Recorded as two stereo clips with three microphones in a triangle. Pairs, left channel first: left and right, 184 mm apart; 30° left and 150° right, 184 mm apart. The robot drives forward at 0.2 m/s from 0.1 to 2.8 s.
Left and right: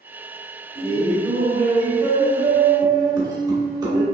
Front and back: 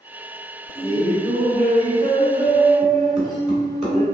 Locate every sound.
0.8 s laughter: 135° right, 1.9 m; by 4.0 s 145° right, 2 m